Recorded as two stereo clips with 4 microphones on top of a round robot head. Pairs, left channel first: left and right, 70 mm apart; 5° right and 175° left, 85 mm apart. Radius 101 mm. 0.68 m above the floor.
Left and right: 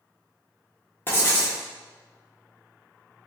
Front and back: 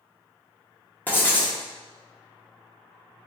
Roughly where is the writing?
Ahead left.